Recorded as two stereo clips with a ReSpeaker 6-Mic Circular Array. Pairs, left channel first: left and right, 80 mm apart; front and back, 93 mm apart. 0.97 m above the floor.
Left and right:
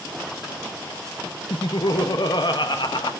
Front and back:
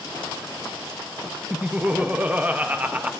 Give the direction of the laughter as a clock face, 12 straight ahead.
8 o'clock.